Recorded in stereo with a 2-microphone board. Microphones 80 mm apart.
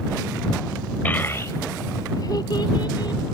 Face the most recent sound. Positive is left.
turn(degrees=65)  # may be behind; listen again after turning